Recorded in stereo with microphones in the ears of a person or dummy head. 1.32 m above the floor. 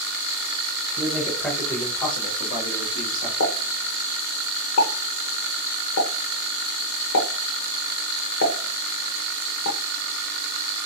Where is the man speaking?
5° right (ahead or behind), 1.4 m; by 3.3 s 45° left (ahead or behind), 1.9 m.